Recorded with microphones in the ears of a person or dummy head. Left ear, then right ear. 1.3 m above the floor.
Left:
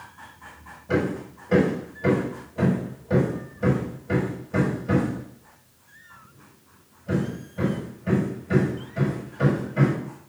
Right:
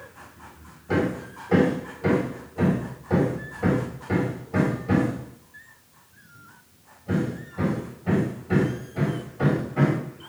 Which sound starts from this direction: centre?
Hammering, at 0.9 s.